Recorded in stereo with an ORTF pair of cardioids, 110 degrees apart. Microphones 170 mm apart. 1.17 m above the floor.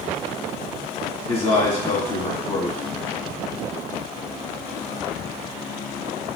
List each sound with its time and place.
1.3 s a man speaking: 25° left, 1.5 m